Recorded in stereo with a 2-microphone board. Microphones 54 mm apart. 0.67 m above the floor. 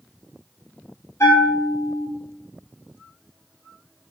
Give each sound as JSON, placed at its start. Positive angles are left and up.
{"t": 1.2, "sound": "a bell", "side_deg": 65, "distance_m": 0.7}